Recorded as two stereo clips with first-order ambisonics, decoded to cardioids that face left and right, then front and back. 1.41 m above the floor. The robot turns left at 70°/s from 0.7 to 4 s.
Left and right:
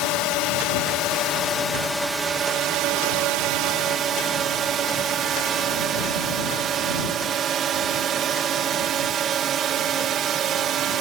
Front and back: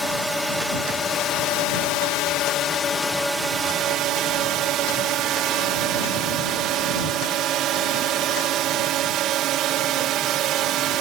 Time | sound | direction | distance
0.0 | a drone | 90° left | ?